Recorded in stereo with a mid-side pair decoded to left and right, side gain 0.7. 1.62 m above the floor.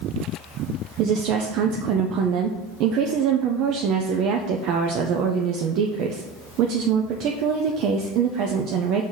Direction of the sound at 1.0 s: 55° right.